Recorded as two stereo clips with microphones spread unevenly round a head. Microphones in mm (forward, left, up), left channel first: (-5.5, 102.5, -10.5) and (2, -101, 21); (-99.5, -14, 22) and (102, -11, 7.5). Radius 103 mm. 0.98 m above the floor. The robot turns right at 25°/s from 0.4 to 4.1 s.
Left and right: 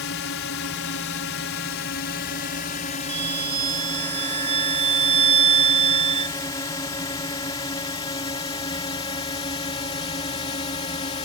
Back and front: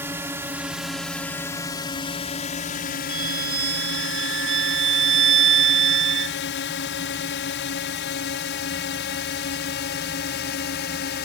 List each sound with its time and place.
0.0 s a drone: 80° left; by 11.3 s 150° left
3.1 s a violin: 55° right; by 6.4 s 30° right